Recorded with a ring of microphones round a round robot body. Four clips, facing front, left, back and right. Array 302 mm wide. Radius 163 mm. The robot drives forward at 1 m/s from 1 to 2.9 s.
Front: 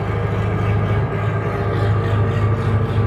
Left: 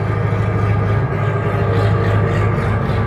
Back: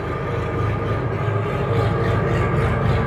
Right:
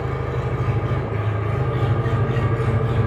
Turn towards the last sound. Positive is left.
turn(degrees=130)